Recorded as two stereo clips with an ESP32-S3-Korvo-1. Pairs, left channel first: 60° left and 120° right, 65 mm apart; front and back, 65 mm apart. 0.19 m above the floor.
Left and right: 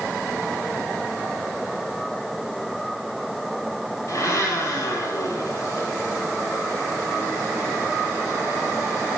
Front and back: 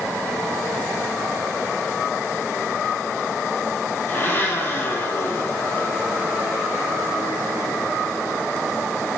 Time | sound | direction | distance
4.1 | a blender | 45° left | 2.5 m